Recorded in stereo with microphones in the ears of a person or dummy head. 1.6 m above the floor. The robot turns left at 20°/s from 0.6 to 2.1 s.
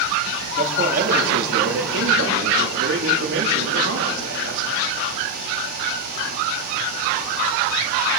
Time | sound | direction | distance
0.6 | a man speaking | 45° right | 2.5 m